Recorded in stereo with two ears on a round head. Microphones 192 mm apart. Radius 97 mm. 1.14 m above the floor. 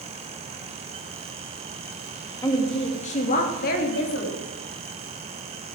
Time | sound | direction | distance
2.4 | a woman speaking | 15° left (ahead or behind) | 1.9 m